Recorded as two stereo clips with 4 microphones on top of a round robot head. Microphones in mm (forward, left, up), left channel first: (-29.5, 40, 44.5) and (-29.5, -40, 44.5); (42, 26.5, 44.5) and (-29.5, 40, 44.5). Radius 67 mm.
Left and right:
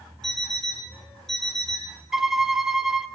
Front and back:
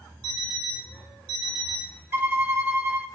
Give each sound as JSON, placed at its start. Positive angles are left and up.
{"t": 0.2, "sound": "an alarm clock", "azimuth_deg": 175, "distance_m": 7.5}
{"t": 2.1, "sound": "a violin", "azimuth_deg": -170, "distance_m": 0.9}